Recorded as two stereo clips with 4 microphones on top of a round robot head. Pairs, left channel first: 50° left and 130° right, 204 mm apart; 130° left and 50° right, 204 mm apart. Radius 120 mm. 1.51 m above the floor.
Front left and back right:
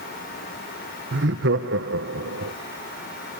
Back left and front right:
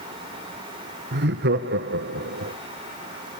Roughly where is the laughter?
Right.